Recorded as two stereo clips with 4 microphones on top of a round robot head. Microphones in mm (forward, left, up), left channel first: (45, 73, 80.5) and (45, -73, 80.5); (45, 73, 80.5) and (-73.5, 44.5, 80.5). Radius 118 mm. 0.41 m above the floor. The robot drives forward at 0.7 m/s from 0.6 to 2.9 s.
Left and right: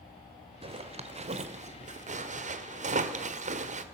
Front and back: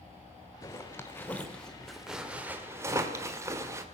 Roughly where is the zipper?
Ahead right.